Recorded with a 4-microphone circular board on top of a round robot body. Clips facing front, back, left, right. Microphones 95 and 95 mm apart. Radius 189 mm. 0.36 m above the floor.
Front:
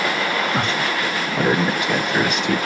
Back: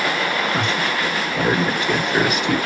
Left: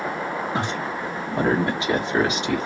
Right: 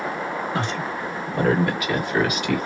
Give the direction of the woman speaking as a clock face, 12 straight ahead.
11 o'clock.